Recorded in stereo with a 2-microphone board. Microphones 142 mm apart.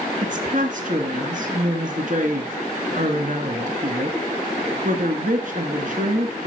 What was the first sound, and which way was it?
A woman speaking, 60° right (ahead or behind).